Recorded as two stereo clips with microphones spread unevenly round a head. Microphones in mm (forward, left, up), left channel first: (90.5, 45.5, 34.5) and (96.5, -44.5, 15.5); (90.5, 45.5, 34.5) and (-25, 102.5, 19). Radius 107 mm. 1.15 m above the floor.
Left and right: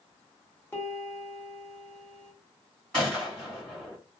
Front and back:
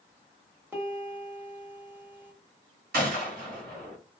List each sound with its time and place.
0.7 s a piano: 80° left, 1.0 m
2.9 s a gunshot: straight behind, 1.2 m